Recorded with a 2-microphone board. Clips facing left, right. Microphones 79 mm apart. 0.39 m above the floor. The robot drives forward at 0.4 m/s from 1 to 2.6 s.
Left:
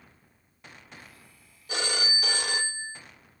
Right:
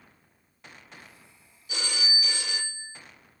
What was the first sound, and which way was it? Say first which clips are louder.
A phone ringing: left 2 dB; 50° left (ahead or behind).